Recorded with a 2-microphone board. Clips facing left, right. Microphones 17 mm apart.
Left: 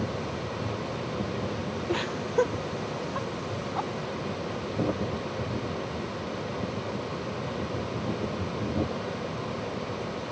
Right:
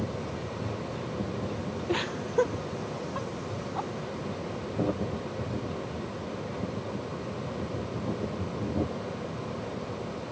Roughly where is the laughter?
Centre.